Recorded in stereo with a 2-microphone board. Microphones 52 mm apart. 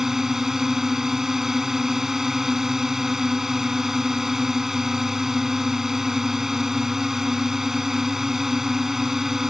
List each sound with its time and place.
0.0 s a drone: 10° right (ahead or behind)